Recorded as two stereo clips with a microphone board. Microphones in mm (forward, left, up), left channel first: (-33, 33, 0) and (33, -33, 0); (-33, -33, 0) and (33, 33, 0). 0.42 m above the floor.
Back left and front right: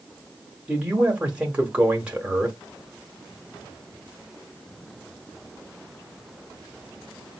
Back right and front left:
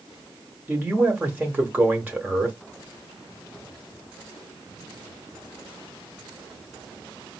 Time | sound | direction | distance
0.7 | a man speaking | 10° left | 0.9 m